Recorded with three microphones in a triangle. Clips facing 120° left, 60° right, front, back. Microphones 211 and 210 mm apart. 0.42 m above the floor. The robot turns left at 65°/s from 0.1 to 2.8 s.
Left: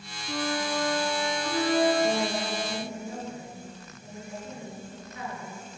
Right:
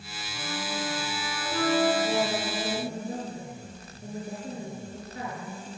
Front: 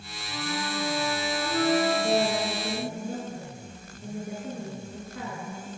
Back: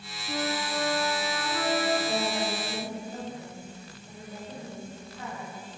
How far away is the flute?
About 3.5 m.